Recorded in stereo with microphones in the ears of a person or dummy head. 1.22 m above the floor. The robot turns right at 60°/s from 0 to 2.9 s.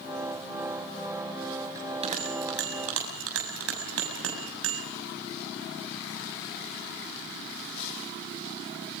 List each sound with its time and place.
1.8 s a bell: 15° right (ahead or behind), 7 m; by 4.8 s 85° right, 7 m